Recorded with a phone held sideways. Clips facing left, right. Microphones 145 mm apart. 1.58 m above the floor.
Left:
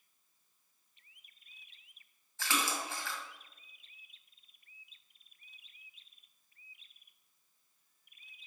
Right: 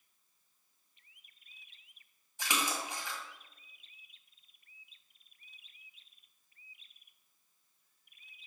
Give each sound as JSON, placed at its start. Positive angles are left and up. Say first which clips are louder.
{"t": 2.4, "sound": "a splash", "louder": "even", "side_deg": -15, "distance_m": 1.7}